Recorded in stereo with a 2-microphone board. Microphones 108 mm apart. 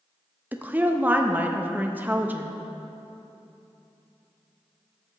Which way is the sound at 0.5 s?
15° right (ahead or behind).